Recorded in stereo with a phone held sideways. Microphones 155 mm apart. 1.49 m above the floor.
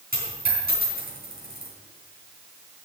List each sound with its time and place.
0.1 s a dropped coin: 75° right (ahead or behind), 4.5 m